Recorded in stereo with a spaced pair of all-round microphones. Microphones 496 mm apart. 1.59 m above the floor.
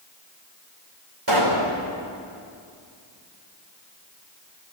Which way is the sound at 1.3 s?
55° right (ahead or behind).